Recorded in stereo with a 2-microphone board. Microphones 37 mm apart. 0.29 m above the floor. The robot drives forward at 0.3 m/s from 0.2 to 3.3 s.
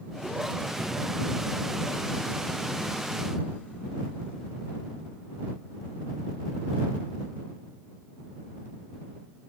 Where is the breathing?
45° left (ahead or behind), 1.3 m.